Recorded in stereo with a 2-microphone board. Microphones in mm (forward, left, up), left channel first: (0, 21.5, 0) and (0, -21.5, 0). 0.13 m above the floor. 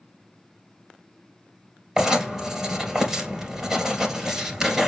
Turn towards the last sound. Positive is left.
turn(degrees=-15)  # may be behind; listen again after turning